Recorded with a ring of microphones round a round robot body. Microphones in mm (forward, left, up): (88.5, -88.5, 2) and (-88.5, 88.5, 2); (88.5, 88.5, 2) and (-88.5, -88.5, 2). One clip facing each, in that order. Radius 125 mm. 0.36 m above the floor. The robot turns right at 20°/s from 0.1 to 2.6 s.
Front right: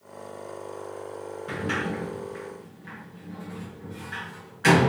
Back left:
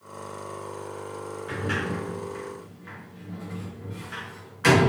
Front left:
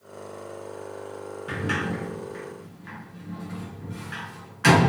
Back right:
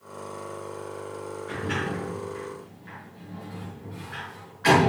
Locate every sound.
1.5 s a sliding door: 30° left, 4.5 m; by 4.9 s 55° left, 4.5 m